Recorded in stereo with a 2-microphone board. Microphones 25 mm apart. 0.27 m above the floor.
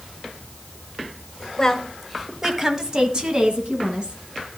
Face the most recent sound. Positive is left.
turn(degrees=-35)  # may be behind; listen again after turning